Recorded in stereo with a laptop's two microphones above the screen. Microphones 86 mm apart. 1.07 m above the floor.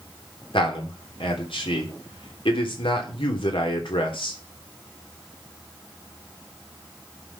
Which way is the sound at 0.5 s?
80° left.